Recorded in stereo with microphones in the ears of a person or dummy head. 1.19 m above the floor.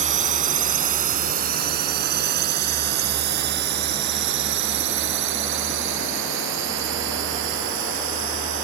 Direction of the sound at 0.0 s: 40° right (ahead or behind).